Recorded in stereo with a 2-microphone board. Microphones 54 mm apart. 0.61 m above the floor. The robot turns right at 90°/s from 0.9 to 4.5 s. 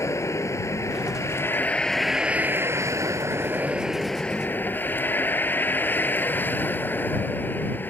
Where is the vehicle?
80° left; by 7.9 s 45° left.